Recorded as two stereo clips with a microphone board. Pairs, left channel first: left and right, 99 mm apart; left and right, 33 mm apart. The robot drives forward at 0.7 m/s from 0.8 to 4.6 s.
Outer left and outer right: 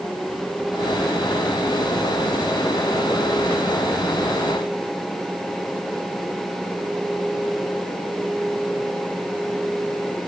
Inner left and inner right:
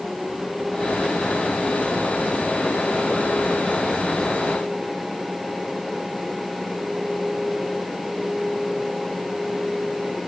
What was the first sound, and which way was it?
Only background noise.